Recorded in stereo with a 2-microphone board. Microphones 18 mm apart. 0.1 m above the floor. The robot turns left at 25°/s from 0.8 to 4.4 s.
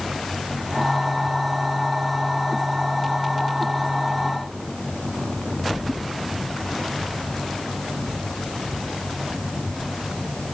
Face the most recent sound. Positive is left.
No sound to turn to.